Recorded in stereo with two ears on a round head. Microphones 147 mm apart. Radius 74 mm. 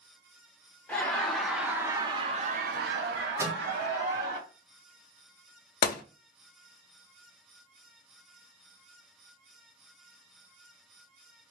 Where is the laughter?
10° left (ahead or behind), 1.1 m; by 4.4 s 65° right (ahead or behind), 1.2 m.